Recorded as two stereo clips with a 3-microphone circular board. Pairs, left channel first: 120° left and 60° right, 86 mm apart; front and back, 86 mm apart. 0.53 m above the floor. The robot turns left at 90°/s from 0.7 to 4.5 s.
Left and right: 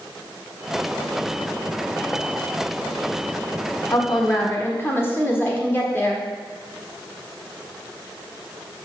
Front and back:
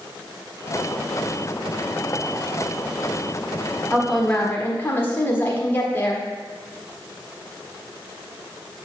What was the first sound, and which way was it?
A woman speaking, 115° left.